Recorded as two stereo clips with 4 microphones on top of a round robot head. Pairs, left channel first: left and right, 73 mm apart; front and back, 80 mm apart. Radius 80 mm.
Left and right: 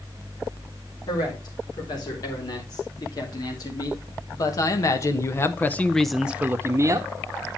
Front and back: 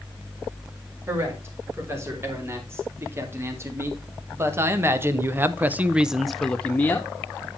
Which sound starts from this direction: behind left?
A man speaking, at 1.1 s.